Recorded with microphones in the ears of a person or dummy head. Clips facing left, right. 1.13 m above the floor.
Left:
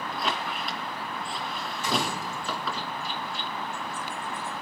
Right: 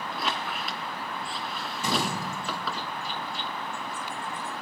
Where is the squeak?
5° right (ahead or behind), 2 m.